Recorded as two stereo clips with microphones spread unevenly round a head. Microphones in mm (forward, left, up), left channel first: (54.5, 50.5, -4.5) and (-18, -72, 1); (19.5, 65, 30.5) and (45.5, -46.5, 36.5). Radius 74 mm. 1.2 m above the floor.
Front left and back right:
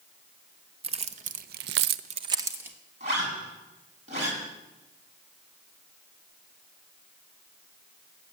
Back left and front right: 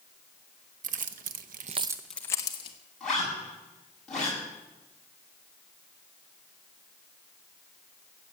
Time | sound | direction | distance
0.8 | keys jangling | 70° right | 1.2 m
3.0 | a zipper | 170° right | 8 m